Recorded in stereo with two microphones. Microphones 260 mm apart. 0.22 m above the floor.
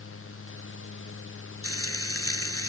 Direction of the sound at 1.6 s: 60° left (ahead or behind).